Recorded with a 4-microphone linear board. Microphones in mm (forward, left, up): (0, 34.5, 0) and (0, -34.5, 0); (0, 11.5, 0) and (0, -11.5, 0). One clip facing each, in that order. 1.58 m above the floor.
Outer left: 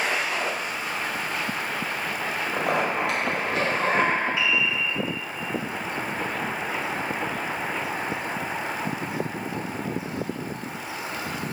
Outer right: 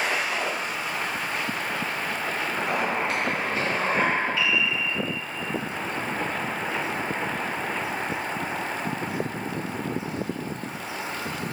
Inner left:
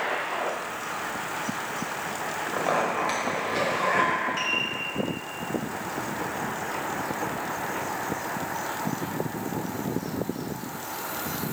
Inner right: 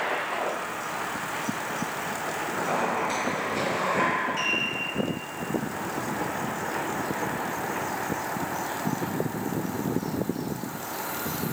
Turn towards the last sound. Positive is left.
turn(degrees=15)  # may be behind; listen again after turning